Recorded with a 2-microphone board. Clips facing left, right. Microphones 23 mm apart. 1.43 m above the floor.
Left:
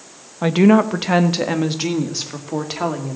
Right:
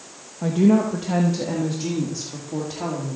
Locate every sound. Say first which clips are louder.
0.4 s a woman speaking: left 5 dB; 75° left (ahead or behind), 1.3 m; by 3.2 s 50° left (ahead or behind), 3 m